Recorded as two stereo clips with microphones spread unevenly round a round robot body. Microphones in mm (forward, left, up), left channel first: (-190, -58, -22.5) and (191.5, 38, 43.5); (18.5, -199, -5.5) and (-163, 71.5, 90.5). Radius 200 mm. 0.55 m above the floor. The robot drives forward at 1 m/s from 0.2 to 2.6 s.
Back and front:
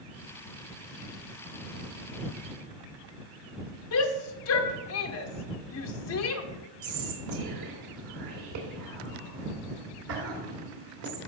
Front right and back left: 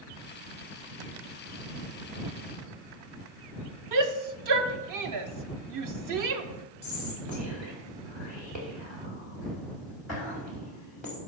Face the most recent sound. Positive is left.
turn(degrees=25)